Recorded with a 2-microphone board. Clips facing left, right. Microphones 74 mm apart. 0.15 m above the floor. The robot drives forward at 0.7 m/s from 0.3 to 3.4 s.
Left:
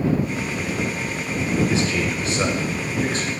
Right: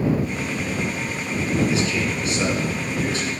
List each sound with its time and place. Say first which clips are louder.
1.7 s a man speaking: even; 35° left (ahead or behind), 1.8 m; by 3.3 s 30° left (ahead or behind), 2 m